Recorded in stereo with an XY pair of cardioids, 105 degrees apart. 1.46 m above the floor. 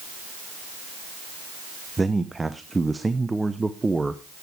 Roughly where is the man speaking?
Ahead.